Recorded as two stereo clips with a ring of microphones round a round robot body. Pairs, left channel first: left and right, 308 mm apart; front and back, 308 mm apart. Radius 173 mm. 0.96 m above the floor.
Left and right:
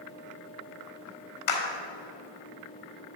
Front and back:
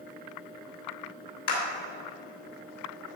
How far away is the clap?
About 2 m.